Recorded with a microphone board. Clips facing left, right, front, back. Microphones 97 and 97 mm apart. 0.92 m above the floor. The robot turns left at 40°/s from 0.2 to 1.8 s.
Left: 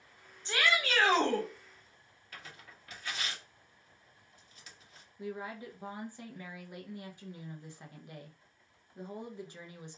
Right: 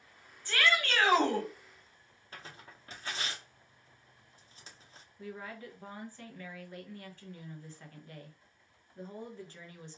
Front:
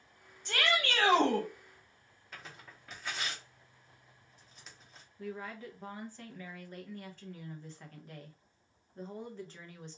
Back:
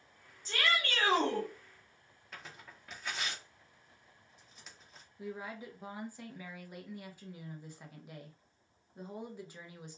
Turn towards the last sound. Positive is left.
turn(degrees=120)